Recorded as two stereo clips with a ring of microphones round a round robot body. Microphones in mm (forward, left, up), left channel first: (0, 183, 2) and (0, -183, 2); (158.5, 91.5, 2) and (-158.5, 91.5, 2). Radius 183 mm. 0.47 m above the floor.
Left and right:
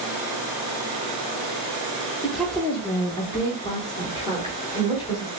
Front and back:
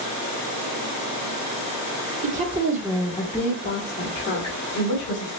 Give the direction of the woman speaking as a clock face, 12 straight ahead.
6 o'clock.